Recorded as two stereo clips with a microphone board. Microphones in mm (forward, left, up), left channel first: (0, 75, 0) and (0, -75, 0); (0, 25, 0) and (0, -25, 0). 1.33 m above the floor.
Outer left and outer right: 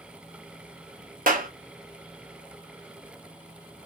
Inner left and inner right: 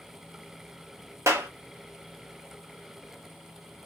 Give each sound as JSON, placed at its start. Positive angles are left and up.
{"t": 1.3, "sound": "a clap", "side_deg": -80, "distance_m": 1.1}